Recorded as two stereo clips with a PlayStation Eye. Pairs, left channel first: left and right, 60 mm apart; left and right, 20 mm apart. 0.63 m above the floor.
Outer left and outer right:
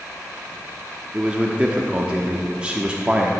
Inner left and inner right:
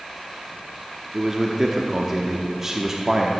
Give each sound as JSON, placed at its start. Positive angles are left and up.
{"t": 1.1, "sound": "a man speaking", "side_deg": -15, "distance_m": 0.9}